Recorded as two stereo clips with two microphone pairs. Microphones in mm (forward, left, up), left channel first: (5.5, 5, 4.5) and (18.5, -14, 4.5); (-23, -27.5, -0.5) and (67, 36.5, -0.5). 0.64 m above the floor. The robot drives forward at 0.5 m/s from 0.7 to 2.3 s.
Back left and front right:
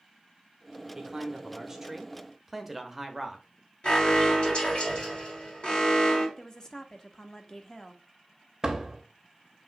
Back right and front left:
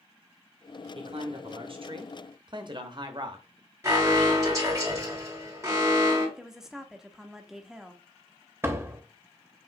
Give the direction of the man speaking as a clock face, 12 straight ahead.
12 o'clock.